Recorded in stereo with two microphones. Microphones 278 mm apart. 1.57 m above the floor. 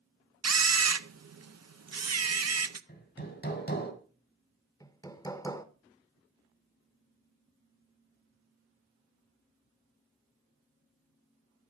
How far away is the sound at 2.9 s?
About 2.5 m.